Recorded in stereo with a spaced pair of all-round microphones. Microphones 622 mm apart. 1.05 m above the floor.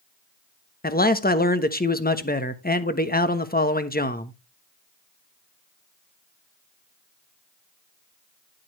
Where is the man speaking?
15° left (ahead or behind), 1.1 m.